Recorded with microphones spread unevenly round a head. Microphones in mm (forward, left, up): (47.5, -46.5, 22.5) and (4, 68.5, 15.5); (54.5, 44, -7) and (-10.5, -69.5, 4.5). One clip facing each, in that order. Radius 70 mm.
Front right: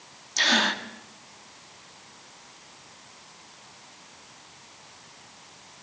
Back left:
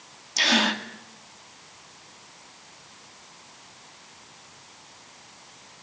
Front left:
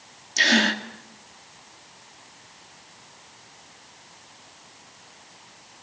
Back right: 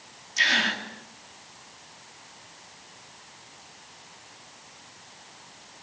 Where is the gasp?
30° left, 2.5 m.